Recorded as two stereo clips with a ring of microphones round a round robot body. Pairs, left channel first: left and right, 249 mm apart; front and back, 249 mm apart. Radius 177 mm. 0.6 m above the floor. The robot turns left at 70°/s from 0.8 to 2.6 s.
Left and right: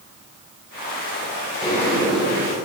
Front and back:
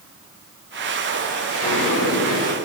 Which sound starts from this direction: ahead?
A sliding door, at 1.6 s.